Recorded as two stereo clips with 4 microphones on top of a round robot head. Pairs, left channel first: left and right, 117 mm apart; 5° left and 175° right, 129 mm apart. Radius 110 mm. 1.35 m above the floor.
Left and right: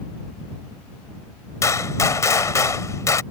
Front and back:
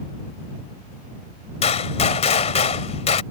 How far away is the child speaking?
I don't hear a child speaking.